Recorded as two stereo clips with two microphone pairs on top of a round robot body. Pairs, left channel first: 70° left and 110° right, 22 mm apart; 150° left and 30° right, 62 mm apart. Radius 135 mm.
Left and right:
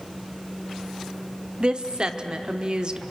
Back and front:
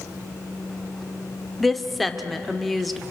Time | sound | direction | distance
1.6 | a woman speaking | 125° right | 1.4 m